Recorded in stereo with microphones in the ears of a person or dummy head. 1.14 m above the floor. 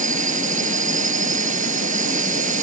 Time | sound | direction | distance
0.0 | a drone | 40° right (ahead or behind) | ?